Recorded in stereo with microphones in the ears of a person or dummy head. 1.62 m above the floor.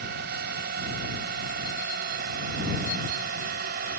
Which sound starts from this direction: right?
A drone, at 0.0 s.